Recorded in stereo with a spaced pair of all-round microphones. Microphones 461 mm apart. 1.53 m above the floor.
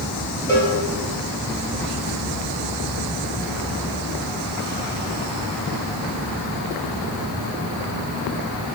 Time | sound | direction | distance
0.5 | a cowbell | 5° left (ahead or behind) | 2.5 m